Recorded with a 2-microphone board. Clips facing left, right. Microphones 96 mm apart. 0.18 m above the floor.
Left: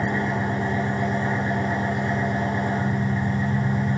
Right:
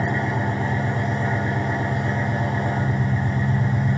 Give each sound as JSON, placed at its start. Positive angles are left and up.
{"t": 0.0, "sound": "an engine running", "side_deg": 20, "distance_m": 3.5}